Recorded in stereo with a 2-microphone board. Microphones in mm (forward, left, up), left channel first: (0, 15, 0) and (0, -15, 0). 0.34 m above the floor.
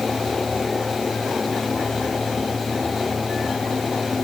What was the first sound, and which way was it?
Only background noise.